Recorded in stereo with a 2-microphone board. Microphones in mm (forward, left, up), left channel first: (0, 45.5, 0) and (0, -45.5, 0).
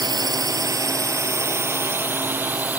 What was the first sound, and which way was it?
A drone, 45° right (ahead or behind).